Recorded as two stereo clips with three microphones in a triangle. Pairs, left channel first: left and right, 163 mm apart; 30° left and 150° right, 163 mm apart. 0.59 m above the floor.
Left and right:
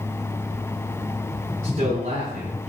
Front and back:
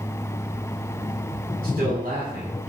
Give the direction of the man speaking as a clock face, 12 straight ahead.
4 o'clock.